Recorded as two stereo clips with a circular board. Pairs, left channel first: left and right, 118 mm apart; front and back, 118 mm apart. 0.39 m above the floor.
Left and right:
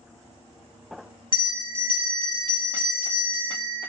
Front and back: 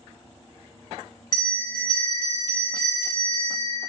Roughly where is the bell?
Ahead right.